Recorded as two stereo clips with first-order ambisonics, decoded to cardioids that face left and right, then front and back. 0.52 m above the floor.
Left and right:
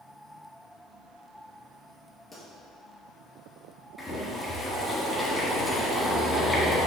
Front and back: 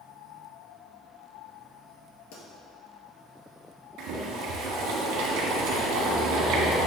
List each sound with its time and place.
2.3 s a pop: 5° left, 2.5 m
4.0 s boiling: 175° left, 1.6 m